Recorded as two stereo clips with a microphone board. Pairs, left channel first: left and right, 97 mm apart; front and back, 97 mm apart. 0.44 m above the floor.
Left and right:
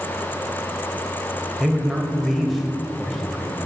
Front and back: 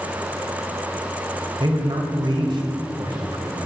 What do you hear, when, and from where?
1.6 s a man speaking: straight behind, 2 m